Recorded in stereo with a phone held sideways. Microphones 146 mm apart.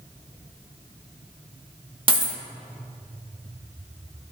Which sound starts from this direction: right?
A dropped coin, at 2.1 s.